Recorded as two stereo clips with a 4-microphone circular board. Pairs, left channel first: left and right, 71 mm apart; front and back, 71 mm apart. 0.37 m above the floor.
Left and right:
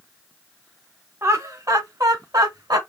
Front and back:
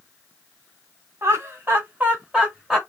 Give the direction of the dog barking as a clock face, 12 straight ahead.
No dog barking in this recording.